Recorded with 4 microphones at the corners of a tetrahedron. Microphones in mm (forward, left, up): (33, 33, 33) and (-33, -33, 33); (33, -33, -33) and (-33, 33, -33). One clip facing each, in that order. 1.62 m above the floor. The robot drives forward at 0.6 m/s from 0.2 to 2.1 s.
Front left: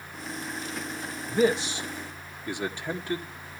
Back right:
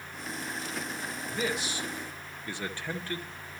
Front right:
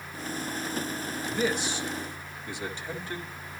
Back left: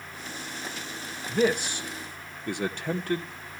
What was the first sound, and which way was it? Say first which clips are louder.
A man speaking: front left 10 dB, back left 5 dB; 95° left.